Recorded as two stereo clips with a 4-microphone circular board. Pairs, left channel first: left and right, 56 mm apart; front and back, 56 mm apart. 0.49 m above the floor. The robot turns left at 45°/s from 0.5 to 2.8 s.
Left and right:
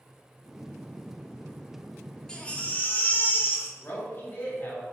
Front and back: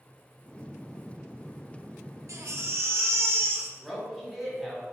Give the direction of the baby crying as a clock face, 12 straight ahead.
7 o'clock.